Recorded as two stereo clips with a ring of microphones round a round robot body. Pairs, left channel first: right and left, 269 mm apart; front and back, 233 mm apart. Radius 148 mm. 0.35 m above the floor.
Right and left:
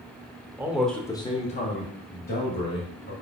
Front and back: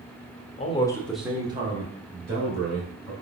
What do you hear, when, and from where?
0.6 s a man speaking: 20° left, 0.9 m; by 3.1 s 140° right, 2 m